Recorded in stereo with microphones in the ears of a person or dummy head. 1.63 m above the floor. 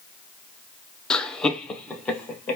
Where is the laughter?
5° left (ahead or behind), 0.6 m.